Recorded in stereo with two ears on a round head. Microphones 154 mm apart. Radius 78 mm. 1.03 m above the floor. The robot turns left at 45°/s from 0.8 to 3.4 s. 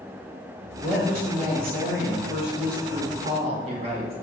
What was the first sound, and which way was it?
A woman speaking, 20° right.